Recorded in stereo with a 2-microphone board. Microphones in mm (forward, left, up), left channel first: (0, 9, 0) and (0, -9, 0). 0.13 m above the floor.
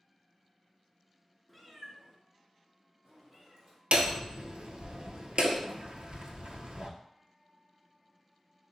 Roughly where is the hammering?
Right.